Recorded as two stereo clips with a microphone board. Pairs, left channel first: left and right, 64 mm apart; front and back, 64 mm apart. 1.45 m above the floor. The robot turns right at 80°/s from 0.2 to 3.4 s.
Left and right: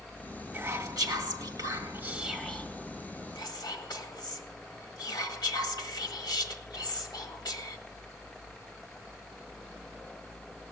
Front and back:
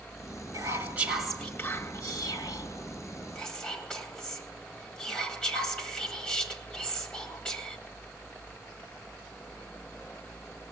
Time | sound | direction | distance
0.5 | whispering | 155° right | 2 m